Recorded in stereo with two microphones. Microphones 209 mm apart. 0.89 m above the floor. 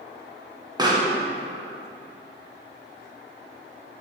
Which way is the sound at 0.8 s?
20° right (ahead or behind).